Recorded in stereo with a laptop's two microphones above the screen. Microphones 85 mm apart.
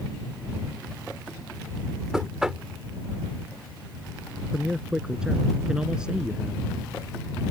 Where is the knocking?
5° right (ahead or behind).